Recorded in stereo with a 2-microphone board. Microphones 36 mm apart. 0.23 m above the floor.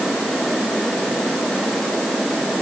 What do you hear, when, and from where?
Only background noise.